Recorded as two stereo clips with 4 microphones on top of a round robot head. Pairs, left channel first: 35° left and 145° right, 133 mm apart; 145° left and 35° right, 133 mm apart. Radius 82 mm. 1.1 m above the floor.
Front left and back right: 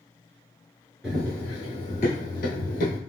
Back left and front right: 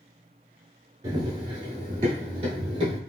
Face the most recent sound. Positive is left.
turn(degrees=15)